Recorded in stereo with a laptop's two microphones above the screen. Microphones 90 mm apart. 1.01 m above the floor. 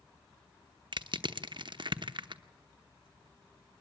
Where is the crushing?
60° right (ahead or behind), 0.9 m.